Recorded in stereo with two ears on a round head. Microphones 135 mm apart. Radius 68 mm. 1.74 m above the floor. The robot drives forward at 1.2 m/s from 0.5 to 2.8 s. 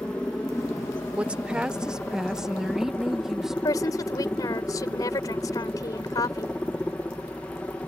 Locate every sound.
0.0 s a helicopter: 5° left (ahead or behind); by 7.9 s 10° left (ahead or behind)
1.2 s a woman speaking: 10° right (ahead or behind); by 3.5 s 5° right (ahead or behind)
3.6 s a woman speaking: 25° left (ahead or behind)